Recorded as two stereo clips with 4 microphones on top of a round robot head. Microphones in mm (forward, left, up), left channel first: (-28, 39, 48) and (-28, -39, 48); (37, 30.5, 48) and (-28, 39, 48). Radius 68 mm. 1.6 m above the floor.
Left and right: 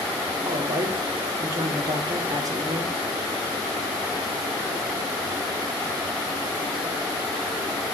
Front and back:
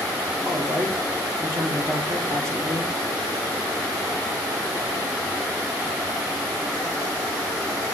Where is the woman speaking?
130° right, 1.7 m.